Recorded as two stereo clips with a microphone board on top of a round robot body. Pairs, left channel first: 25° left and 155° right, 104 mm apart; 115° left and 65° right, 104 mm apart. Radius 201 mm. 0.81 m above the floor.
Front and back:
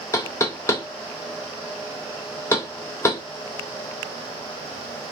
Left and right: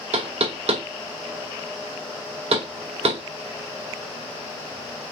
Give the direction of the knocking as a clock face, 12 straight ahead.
1 o'clock.